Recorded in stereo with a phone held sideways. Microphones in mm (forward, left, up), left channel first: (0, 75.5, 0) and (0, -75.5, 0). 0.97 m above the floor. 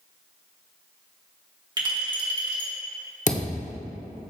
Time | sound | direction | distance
1.8 | a clink | 30° right (ahead or behind) | 1.5 m
3.3 | a thud | 55° left (ahead or behind) | 0.7 m